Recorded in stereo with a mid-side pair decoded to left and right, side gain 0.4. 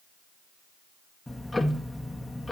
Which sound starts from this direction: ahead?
Ticking, at 1.3 s.